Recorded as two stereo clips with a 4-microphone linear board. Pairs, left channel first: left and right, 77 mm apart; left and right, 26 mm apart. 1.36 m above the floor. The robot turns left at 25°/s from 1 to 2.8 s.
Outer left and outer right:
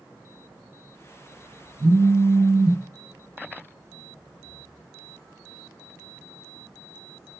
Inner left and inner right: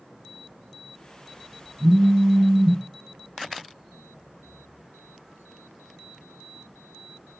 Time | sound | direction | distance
1.8 | a phone buzzing | 60° right (ahead or behind) | 2 m